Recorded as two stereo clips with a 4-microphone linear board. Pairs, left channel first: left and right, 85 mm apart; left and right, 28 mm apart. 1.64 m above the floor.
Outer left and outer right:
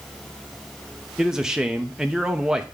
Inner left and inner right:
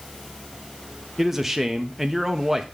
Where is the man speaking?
10° right (ahead or behind), 0.6 m.